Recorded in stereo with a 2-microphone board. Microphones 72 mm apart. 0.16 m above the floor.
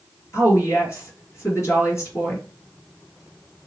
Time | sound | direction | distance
0.3 | a woman speaking | 45° left (ahead or behind) | 3 m